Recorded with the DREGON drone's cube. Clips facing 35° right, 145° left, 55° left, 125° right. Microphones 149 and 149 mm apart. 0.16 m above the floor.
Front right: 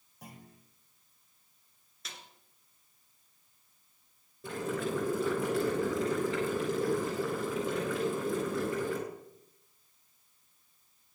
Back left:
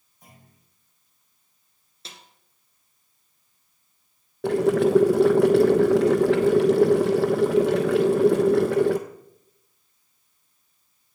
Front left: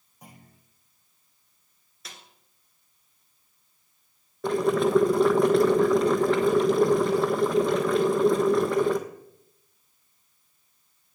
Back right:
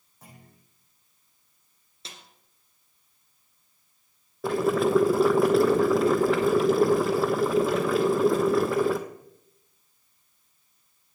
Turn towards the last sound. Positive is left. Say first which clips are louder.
# back left 15 dB, even
turn(degrees=150)